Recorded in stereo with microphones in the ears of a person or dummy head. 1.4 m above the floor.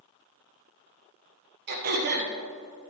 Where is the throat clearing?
55° right (ahead or behind), 1.2 m.